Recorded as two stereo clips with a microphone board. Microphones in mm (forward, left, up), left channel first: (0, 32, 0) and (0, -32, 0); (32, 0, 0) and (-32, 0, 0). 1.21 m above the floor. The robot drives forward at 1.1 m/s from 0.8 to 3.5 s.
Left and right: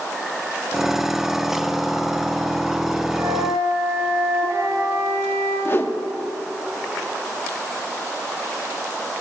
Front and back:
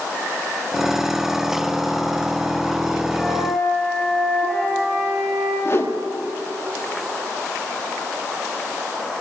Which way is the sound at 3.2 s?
60° right.